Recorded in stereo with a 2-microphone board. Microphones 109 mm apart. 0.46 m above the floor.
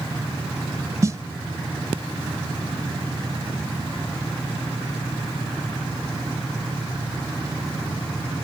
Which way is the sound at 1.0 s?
30° right (ahead or behind).